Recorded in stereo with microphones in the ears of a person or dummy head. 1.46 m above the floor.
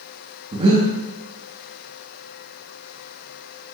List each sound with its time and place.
0.5 s breathing: 25° right (ahead or behind), 1.5 m